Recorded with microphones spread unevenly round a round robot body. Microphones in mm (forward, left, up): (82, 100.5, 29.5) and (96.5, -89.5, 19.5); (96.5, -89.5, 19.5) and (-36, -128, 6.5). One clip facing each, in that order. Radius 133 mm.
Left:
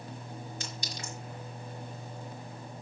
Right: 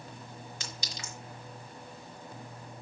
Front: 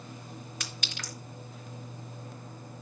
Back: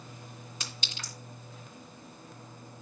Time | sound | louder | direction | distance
0.6 | a clink | left 3 dB, front 2 dB | 100° right | 3.5 m